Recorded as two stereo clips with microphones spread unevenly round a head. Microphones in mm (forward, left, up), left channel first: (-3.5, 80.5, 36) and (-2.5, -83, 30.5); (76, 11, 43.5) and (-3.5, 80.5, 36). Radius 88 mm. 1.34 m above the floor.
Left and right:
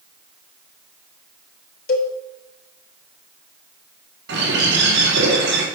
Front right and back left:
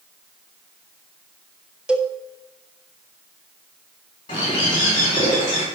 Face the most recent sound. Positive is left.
turn(degrees=-100)